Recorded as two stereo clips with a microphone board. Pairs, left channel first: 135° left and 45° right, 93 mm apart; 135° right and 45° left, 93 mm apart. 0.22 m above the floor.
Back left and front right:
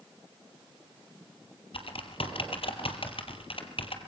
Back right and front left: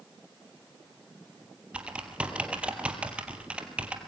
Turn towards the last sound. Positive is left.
turn(degrees=120)